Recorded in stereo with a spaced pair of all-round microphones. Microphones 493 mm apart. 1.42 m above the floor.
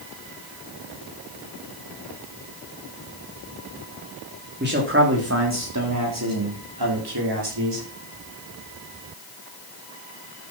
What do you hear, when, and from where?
4.6 s a man speaking: 20° right (ahead or behind), 3.5 m; by 7.8 s 60° right (ahead or behind), 4.5 m